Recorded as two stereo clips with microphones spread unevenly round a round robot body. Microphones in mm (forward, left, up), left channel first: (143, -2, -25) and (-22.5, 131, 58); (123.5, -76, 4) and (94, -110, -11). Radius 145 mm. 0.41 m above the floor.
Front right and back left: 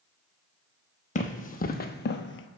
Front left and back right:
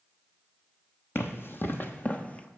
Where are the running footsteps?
25° left, 1.1 m; by 2.5 s straight ahead, 0.6 m.